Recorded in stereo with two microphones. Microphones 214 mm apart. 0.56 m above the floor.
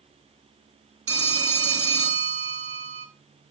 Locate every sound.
1.1 s a phone ringing: 75° right (ahead or behind), 2.0 m